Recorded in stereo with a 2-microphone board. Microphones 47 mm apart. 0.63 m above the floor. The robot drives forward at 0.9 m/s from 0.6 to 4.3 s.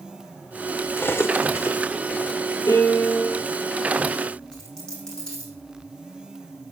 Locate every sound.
1.0 s cutlery clinking: 50° left (ahead or behind), 1.3 m; by 1.8 s 70° left (ahead or behind), 1.1 m
2.7 s a piano: 70° left (ahead or behind), 2.5 m; by 3.4 s 55° left (ahead or behind), 3 m
4.5 s a dropped coin: 15° left (ahead or behind), 4 m